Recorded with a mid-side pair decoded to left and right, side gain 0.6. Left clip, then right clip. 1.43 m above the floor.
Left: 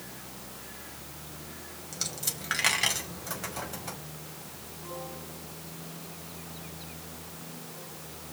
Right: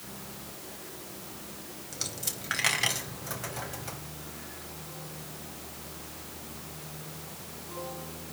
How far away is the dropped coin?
About 4.5 m.